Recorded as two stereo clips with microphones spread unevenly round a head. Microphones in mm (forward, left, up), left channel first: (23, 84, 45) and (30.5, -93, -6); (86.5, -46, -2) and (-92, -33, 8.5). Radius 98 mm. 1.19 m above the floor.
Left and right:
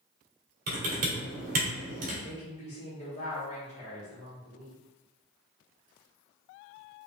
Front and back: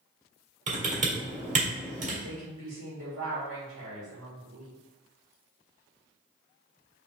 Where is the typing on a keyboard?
140° right, 1.8 m.